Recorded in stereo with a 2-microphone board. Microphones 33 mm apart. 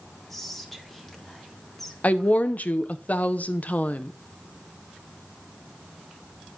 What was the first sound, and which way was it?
Whispering, 10° left (ahead or behind).